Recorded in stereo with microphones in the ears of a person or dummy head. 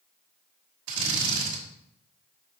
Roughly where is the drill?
Right.